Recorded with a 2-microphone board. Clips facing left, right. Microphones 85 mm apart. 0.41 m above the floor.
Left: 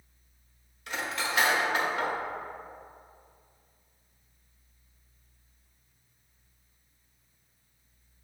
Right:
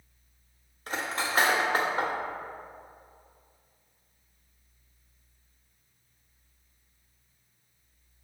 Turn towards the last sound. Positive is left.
turn(degrees=-40)  # may be behind; listen again after turning